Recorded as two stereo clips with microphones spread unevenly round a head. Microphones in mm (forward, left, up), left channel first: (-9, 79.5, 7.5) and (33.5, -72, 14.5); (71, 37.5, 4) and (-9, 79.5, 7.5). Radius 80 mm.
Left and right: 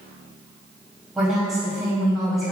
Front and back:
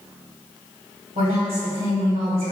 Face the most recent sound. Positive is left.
turn(degrees=-165)